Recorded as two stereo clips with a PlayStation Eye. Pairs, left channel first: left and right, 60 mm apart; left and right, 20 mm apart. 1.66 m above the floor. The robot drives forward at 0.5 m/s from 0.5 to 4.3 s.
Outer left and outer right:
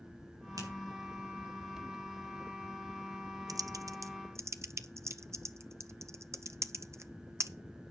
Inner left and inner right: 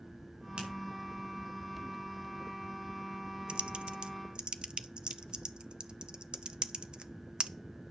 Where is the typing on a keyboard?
80° right, 0.5 m; by 7.5 s 50° right (ahead or behind), 0.7 m.